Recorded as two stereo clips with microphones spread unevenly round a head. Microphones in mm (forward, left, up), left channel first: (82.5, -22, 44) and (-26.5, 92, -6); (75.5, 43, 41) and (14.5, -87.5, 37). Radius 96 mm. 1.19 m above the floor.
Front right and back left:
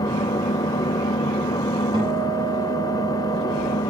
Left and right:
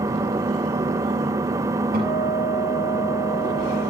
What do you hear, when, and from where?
0.0 s an engine running: 55° right, 1.0 m
1.9 s a guitar: 155° right, 8.5 m